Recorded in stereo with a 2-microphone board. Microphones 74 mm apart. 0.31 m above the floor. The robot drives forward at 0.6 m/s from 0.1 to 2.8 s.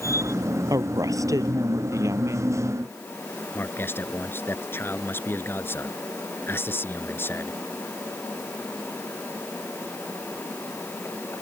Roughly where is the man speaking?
Left.